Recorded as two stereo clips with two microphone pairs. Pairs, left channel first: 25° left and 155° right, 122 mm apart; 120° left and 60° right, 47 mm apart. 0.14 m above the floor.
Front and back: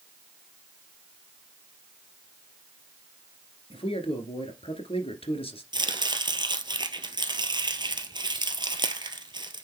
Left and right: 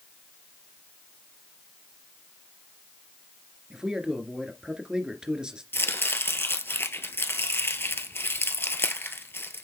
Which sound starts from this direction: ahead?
A man speaking, at 3.7 s.